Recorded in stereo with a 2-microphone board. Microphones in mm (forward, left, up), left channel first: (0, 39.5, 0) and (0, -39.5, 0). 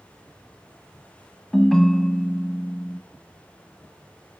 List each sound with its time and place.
1.5 s a ringtone: 5° left (ahead or behind), 0.9 m